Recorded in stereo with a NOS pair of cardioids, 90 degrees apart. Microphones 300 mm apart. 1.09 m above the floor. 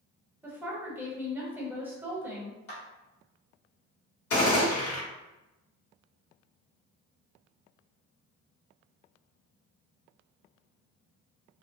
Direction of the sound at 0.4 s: 5° right.